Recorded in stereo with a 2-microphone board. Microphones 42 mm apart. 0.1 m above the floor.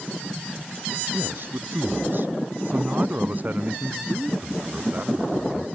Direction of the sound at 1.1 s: 60° right (ahead or behind).